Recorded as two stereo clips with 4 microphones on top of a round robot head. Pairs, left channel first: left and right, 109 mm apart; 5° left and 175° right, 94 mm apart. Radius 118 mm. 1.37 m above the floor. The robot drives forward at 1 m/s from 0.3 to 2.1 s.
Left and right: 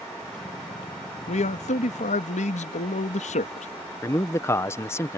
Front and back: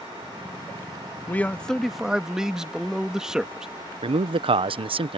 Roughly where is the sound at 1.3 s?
Left.